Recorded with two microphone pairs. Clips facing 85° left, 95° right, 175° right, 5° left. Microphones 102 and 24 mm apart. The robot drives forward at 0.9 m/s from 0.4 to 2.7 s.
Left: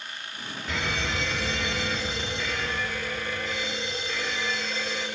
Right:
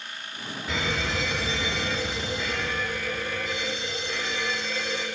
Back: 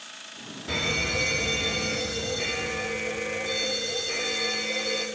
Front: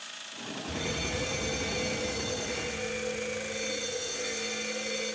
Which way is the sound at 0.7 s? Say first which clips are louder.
Right 1 dB, back 8 dB; 175° left.